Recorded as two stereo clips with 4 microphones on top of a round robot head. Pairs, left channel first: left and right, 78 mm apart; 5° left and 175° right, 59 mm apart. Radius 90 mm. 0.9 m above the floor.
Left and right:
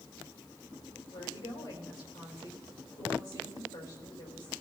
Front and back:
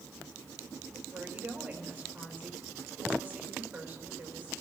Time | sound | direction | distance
1.1 | a woman speaking | 125° left | 4 m